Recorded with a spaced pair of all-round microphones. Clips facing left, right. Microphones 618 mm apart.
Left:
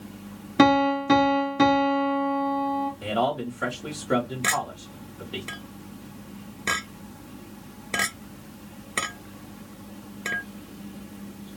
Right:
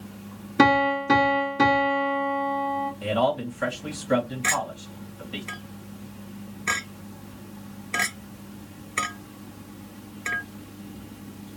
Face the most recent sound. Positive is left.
turn(degrees=60)  # may be behind; listen again after turning